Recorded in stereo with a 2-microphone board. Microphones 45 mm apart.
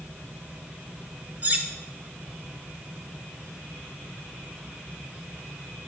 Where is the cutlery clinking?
35° right (ahead or behind), 0.7 m.